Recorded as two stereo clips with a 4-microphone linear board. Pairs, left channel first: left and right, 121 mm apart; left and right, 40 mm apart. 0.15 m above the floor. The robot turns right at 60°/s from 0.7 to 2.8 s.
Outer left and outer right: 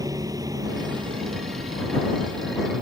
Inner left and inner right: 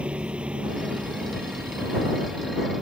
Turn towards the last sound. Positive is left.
turn(degrees=-20)